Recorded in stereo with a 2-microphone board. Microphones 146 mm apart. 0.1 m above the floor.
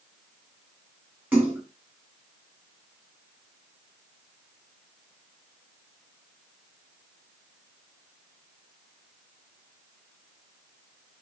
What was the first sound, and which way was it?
A splash, 10° right (ahead or behind).